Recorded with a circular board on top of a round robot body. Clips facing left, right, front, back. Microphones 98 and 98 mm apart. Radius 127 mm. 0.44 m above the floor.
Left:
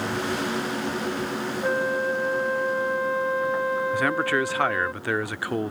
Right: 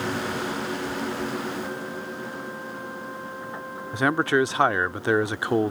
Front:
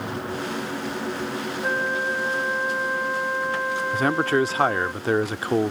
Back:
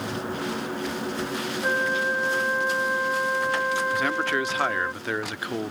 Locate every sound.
1.6 s a flute: 90° left
3.9 s a man speaking: 35° right